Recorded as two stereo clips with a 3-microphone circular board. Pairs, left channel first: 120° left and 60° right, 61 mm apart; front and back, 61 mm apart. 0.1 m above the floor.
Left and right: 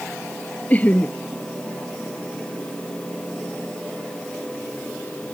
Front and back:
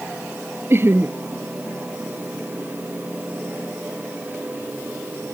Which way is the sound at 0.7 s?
170° left.